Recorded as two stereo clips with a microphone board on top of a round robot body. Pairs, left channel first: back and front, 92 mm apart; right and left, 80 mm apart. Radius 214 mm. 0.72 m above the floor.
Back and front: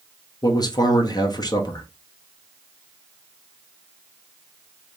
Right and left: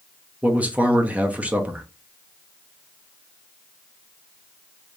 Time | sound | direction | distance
0.4 | a man speaking | 160° left | 1.0 m